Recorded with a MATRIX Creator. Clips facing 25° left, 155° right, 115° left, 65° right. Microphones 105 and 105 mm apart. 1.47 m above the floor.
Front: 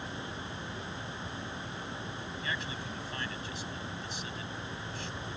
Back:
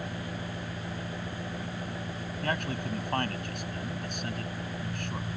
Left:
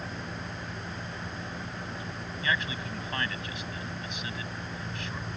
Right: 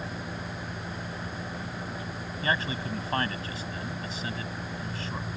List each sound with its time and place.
0.0 s an engine running: 145° right
2.4 s a man speaking: 125° right